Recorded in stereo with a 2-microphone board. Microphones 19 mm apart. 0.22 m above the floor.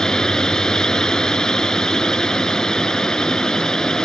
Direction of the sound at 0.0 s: 40° left (ahead or behind).